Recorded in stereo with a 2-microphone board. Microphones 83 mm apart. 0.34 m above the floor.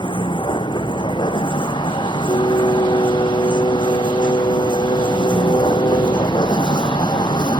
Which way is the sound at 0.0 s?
75° left (ahead or behind).